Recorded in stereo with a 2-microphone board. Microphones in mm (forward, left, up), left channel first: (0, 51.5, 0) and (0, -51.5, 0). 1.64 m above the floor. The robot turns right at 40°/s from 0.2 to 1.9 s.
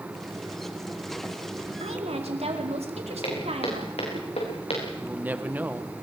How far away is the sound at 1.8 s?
About 4 m.